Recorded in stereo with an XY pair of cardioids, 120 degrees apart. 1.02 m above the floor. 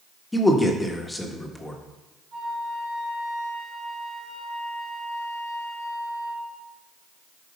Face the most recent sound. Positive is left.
turn(degrees=-65)